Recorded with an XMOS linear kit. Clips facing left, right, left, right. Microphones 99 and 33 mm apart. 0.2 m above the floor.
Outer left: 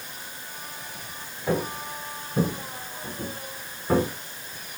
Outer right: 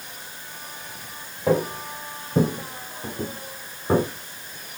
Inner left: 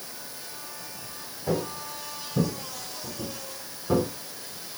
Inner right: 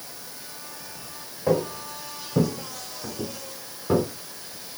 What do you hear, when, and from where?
1.5 s footsteps: 80° right, 1.6 m; by 4.1 s 20° right (ahead or behind), 1.2 m